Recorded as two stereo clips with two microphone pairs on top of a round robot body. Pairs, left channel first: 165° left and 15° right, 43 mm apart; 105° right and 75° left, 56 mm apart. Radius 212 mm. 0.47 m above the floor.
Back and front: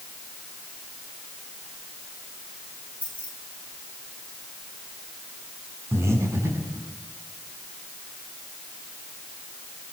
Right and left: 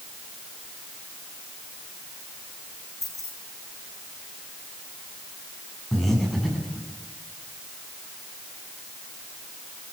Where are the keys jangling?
80° right, 9.5 m.